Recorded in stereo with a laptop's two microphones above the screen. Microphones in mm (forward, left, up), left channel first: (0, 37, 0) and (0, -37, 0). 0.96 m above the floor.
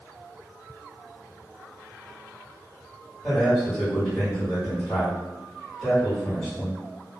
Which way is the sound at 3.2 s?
Centre (ahead or behind).